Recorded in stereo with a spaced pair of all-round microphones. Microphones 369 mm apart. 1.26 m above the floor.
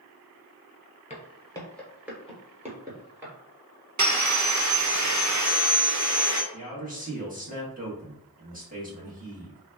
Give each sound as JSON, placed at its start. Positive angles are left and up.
{"t": 1.1, "sound": "footsteps", "side_deg": 20, "distance_m": 1.2}
{"t": 4.0, "sound": "sawing", "side_deg": -50, "distance_m": 0.6}
{"t": 6.5, "sound": "a man speaking", "side_deg": -20, "distance_m": 1.4}